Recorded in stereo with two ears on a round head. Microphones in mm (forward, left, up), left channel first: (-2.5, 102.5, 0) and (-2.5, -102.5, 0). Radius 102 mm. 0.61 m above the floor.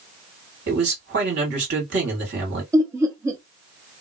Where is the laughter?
15° right (ahead or behind), 0.7 m.